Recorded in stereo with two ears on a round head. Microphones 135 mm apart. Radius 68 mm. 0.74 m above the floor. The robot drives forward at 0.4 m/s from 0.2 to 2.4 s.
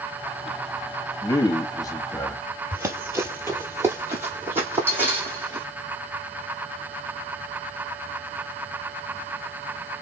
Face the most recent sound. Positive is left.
turn(degrees=-15)  # may be behind; listen again after turning